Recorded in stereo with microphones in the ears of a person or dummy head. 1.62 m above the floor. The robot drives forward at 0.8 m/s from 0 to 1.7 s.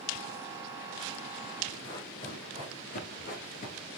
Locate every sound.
1.8 s running footsteps: 20° left (ahead or behind), 1.9 m; by 3.9 s 45° left (ahead or behind), 2 m